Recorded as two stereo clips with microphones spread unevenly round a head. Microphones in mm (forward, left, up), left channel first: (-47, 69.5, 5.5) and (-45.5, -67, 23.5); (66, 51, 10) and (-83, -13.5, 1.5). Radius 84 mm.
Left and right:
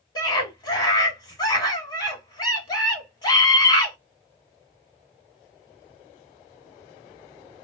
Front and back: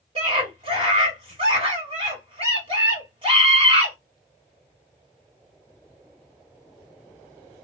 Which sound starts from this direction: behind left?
A scream, at 0.1 s.